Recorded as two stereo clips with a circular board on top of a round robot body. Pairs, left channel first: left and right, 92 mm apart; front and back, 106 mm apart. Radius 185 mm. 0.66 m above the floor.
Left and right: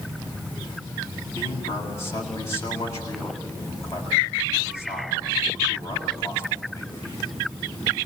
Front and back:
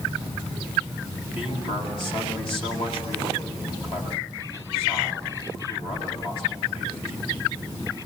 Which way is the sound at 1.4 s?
35° left.